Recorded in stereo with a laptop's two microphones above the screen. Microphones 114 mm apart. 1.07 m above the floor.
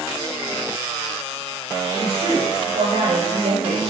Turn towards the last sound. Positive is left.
turn(degrees=-85)